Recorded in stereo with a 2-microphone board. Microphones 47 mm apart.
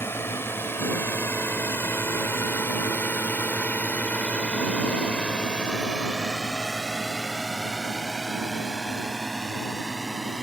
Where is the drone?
55° left (ahead or behind); by 10.4 s 5° right (ahead or behind).